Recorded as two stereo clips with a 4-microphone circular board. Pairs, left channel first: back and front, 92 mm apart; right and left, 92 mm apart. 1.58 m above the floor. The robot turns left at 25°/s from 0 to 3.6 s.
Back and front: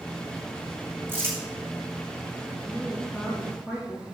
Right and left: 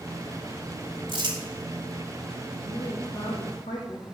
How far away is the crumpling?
About 3 m.